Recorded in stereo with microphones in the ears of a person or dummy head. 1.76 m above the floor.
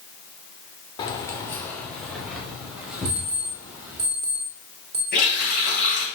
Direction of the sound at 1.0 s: 25° left (ahead or behind).